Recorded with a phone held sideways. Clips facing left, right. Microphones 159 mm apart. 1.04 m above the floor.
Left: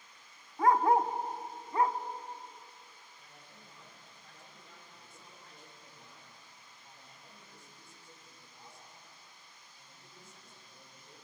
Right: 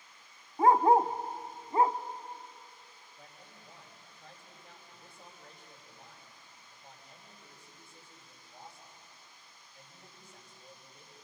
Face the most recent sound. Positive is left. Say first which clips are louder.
# right 6 dB
turn(degrees=-70)  # may be behind; listen again after turning